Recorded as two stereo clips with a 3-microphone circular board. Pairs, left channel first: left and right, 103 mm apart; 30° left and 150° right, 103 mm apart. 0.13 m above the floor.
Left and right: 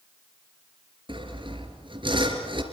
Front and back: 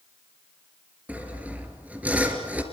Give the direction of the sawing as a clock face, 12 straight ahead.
3 o'clock.